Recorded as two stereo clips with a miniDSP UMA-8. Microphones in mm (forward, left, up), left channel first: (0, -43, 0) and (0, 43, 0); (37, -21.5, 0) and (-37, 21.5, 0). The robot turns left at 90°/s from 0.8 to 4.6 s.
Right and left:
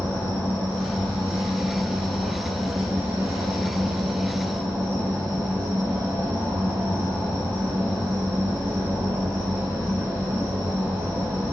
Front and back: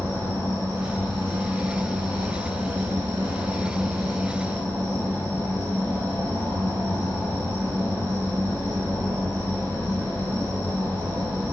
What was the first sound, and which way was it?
An insect, 30° right.